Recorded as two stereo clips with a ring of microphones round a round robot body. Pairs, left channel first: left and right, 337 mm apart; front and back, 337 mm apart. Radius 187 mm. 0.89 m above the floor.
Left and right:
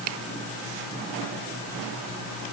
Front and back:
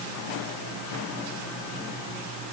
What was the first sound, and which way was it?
Only background noise.